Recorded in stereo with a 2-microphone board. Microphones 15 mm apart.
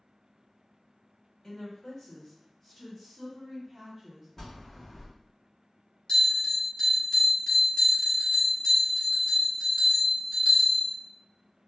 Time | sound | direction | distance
1.4 | a woman speaking | 45° left (ahead or behind) | 1.8 m
4.4 | a bell | 30° left (ahead or behind) | 1.4 m
6.1 | a bell | 45° left (ahead or behind) | 1.4 m